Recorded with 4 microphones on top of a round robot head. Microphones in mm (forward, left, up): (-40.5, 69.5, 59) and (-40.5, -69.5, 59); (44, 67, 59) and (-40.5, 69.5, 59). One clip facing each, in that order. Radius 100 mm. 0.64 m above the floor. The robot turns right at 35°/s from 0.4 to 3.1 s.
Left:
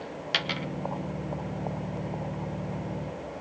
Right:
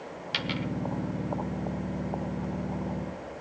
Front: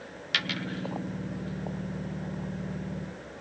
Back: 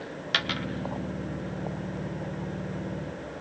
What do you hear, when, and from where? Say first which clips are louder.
0.3 s a dropped coin: right 2 dB, back 2 dB; 125° left, 0.9 m; by 0.7 s 135° left, 0.9 m